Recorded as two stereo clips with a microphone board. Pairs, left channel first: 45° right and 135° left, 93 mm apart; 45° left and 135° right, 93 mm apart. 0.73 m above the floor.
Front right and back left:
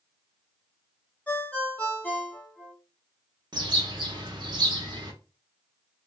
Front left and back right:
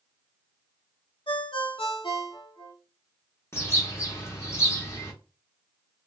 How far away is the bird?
About 0.7 m.